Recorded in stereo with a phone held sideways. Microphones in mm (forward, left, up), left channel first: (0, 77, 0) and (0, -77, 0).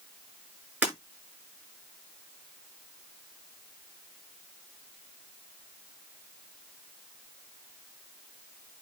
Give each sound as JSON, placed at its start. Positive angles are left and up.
{"t": 0.8, "sound": "breaking glass", "side_deg": -10, "distance_m": 7.5}